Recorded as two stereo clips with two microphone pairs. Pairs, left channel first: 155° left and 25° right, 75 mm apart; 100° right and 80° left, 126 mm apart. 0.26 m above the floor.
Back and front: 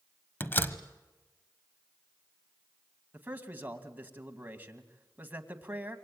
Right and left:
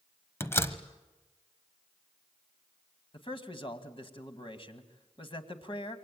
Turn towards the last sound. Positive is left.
turn(degrees=-80)